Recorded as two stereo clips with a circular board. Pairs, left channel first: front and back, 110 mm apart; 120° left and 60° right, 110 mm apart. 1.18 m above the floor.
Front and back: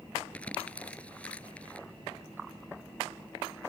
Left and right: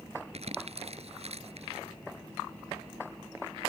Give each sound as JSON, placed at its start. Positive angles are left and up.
{"t": 0.3, "sound": "crumpling", "azimuth_deg": -80}